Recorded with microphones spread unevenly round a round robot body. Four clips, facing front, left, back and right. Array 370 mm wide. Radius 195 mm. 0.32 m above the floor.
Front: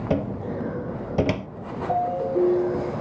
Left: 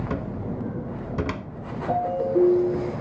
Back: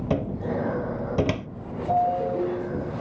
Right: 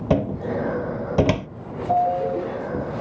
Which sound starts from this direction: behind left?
A ringtone, at 1.9 s.